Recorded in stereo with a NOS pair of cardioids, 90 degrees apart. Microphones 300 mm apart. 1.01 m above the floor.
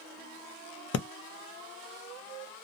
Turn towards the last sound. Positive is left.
turn(degrees=50)